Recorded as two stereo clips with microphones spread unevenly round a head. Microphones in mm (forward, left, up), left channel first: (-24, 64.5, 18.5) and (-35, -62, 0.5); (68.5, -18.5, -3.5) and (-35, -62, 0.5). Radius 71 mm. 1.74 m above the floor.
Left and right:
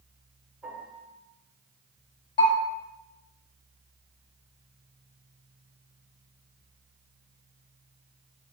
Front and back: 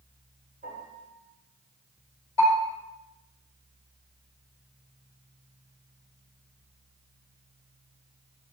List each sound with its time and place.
0.6 s a piano: straight behind, 8 m
2.4 s a bell: 130° left, 7.5 m